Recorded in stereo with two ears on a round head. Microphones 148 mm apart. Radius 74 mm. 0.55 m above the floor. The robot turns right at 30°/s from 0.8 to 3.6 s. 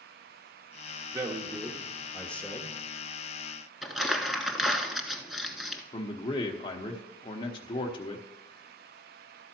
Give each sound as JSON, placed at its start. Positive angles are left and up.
{"t": 1.1, "sound": "a man speaking", "azimuth_deg": -25, "distance_m": 1.0}
{"t": 3.8, "sound": "crumpling", "side_deg": 0, "distance_m": 0.9}
{"t": 5.9, "sound": "a man speaking", "side_deg": 30, "distance_m": 1.0}